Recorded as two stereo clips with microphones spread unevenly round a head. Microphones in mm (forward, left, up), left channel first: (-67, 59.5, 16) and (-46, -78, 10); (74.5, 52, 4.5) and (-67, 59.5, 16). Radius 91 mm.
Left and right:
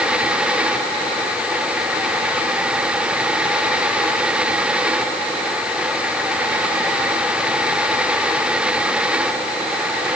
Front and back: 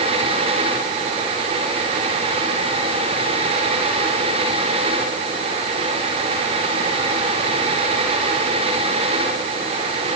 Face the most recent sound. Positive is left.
No sound to turn to.